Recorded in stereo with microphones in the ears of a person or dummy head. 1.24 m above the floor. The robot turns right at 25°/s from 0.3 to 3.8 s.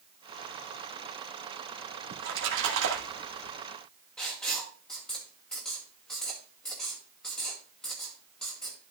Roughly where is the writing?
Centre.